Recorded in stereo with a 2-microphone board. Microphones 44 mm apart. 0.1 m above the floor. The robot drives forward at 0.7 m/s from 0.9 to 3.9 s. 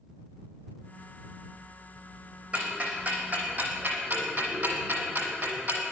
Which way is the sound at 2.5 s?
30° right (ahead or behind).